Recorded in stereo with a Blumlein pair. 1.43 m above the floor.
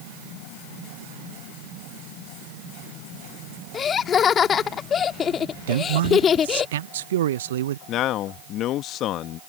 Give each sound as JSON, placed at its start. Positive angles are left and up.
{"t": 3.7, "sound": "laughter", "azimuth_deg": 25}
{"t": 5.7, "sound": "a man speaking", "azimuth_deg": -60}
{"t": 7.9, "sound": "a man speaking", "azimuth_deg": 35}